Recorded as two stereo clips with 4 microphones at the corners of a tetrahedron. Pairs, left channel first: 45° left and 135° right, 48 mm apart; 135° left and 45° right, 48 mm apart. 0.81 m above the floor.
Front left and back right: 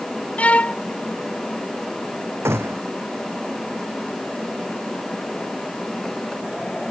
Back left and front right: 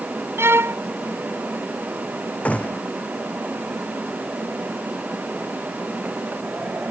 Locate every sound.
0.4 s a violin: 15° right
2.5 s a gunshot: 165° right